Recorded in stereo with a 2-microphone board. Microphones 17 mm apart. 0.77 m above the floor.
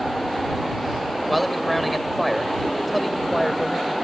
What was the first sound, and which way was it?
A man speaking, 5° left (ahead or behind).